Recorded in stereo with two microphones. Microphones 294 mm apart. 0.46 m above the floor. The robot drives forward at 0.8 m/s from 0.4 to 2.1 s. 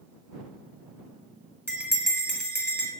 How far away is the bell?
About 1.6 m.